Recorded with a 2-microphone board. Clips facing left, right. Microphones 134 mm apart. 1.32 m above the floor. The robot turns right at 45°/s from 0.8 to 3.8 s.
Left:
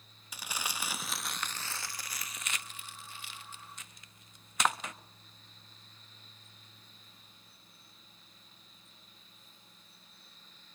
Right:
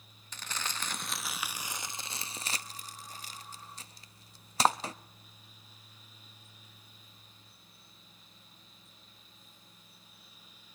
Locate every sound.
0.3 s crumpling: 10° left (ahead or behind), 0.8 m; by 4.9 s 35° right (ahead or behind), 0.8 m